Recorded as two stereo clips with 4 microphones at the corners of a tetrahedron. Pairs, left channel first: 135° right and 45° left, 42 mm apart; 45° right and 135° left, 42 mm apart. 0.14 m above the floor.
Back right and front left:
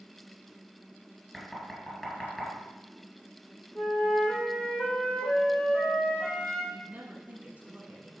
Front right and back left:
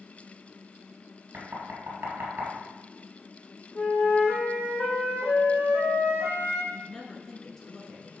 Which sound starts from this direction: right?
A flute, at 3.8 s.